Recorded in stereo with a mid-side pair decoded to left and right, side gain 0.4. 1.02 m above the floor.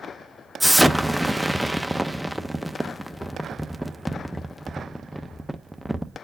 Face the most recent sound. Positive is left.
turn(degrees=-5)